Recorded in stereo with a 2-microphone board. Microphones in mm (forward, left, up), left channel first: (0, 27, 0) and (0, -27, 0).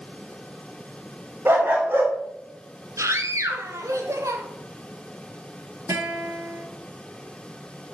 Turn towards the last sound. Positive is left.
turn(degrees=-65)  # may be behind; listen again after turning